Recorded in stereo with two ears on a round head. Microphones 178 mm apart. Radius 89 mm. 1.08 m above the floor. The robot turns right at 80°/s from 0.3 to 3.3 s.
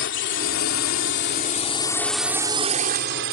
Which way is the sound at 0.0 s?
65° left (ahead or behind).